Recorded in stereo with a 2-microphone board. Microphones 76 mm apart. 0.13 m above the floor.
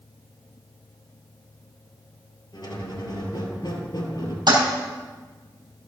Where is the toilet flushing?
70° right (ahead or behind), 3 m.